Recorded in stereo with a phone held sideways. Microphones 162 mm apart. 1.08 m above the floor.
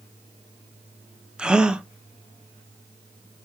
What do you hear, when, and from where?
1.4 s a gasp: 5° right (ahead or behind), 0.6 m